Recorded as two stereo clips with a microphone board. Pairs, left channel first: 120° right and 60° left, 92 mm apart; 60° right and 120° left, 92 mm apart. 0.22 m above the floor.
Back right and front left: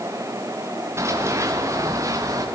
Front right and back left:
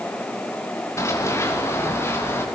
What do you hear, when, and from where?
1.0 s running footsteps: straight ahead, 4.5 m; by 2.5 s 5° left, 5.5 m